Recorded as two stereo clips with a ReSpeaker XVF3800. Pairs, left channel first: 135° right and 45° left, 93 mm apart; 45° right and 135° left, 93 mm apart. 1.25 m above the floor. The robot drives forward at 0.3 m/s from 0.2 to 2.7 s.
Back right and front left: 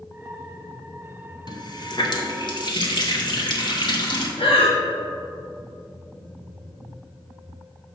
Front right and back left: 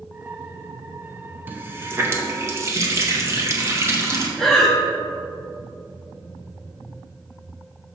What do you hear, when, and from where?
1.5 s a running tap: 160° right, 0.7 m; by 4.3 s 165° right, 1.0 m
4.4 s breathing: 130° right, 1.1 m